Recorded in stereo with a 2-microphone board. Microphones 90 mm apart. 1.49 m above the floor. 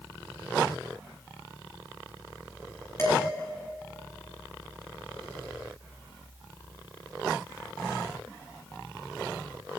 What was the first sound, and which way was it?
Dishes clattering, 30° left (ahead or behind).